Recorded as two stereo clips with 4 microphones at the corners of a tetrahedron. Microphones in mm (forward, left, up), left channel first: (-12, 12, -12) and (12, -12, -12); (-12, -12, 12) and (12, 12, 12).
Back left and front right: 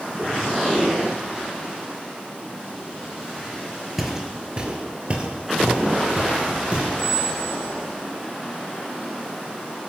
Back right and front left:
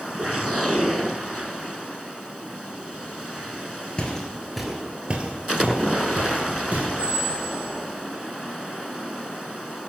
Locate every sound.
4.0 s footsteps: 125° right, 0.5 m; by 6.9 s 15° left, 1.5 m
7.0 s a squeak: 70° left, 1.7 m